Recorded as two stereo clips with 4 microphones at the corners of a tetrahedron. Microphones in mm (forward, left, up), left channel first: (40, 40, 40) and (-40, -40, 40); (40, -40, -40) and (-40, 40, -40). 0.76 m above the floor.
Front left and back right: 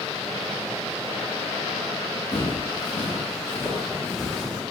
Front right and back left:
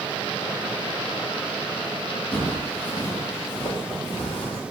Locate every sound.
2.3 s footsteps: 35° left, 1.3 m; by 4.6 s 55° right, 1.2 m